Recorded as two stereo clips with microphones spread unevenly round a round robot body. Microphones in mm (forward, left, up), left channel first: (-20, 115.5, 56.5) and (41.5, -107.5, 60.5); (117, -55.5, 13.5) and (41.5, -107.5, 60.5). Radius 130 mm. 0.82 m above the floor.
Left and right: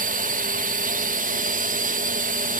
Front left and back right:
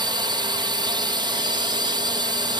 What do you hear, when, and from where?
0.0 s a drone: 95° right